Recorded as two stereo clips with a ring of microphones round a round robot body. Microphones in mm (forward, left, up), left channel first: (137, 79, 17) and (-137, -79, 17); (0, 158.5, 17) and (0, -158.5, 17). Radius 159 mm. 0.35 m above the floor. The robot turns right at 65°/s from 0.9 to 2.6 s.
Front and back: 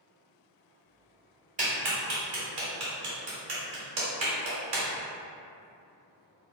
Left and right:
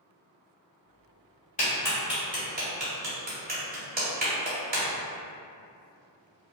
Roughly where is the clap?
Behind left.